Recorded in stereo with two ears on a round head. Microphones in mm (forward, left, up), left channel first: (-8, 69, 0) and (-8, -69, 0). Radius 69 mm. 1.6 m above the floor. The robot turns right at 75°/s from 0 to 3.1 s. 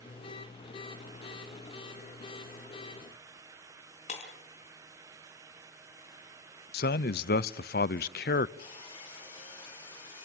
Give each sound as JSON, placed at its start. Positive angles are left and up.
{"t": 4.1, "sound": "breaking glass", "side_deg": 50, "distance_m": 4.0}
{"t": 6.7, "sound": "a man speaking", "side_deg": 75, "distance_m": 0.7}
{"t": 8.6, "sound": "sawing", "side_deg": 35, "distance_m": 7.0}